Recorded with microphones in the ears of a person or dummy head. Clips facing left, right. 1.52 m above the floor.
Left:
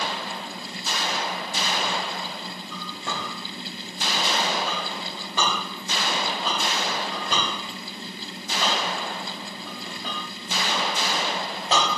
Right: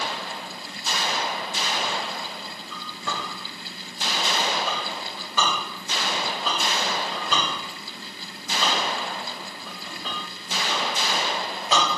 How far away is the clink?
About 2 m.